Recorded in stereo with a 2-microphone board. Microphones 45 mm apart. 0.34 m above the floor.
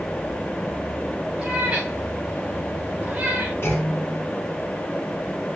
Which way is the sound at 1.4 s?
25° right (ahead or behind).